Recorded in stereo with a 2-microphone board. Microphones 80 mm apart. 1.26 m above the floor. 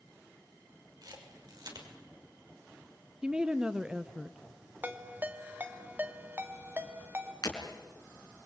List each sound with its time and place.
1.0 s a camera shutter: 55° right (ahead or behind), 6 m
3.2 s a woman speaking: 15° right (ahead or behind), 1.0 m
4.8 s a ringtone: 25° right (ahead or behind), 1.8 m
7.4 s breaking glass: 55° left (ahead or behind), 4.5 m